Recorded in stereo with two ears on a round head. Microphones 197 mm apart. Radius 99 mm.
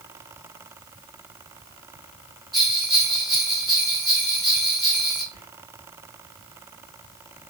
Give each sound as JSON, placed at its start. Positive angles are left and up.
{"t": 2.5, "sound": "a bell", "side_deg": 0, "distance_m": 0.9}
{"t": 5.3, "sound": "whispering", "side_deg": 30, "distance_m": 1.2}